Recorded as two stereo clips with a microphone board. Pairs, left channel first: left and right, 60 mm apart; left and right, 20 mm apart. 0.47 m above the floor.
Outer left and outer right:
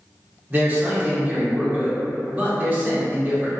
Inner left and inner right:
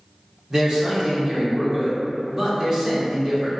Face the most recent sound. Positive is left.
turn(degrees=-30)  # may be behind; listen again after turning